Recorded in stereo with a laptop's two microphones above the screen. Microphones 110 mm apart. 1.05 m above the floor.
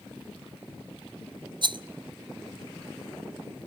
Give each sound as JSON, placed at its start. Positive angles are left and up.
{"t": 1.6, "sound": "a rattle", "side_deg": -45, "distance_m": 0.5}